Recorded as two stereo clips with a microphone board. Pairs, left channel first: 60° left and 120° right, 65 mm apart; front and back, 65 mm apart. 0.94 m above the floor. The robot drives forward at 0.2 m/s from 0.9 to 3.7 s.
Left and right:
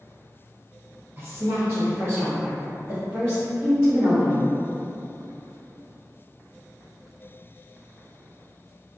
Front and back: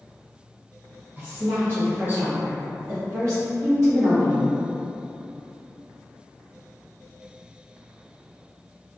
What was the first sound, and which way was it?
A woman speaking, 130° right.